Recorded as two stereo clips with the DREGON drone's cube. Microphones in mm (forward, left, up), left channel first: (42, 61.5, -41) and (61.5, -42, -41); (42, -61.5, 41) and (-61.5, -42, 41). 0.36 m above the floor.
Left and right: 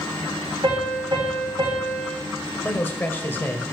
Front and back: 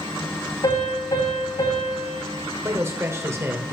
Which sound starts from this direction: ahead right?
A piano, at 0.6 s.